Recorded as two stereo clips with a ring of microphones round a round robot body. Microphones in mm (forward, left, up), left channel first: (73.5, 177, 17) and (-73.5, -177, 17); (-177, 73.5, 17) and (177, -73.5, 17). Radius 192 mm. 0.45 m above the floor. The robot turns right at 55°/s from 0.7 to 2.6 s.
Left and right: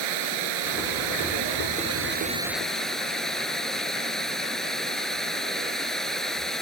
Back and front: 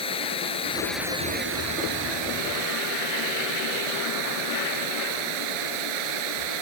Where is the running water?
125° right; by 6.6 s 20° right.